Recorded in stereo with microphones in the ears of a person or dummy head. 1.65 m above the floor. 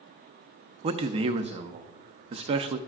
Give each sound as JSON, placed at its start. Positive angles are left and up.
{"t": 0.8, "sound": "a man speaking", "side_deg": -30, "distance_m": 0.6}